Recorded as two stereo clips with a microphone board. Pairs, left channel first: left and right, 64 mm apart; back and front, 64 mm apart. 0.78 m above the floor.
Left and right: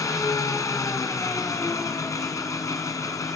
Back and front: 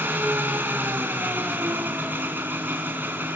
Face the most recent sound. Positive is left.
turn(degrees=60)